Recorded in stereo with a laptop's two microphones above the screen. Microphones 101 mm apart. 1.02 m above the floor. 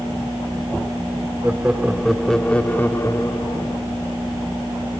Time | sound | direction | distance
1.4 | laughter | 15° right (ahead or behind) | 2.5 m